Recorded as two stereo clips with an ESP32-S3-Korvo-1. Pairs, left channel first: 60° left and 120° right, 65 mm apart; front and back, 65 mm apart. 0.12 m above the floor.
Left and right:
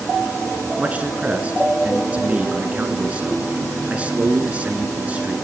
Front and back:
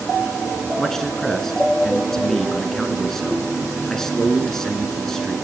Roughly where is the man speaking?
Right.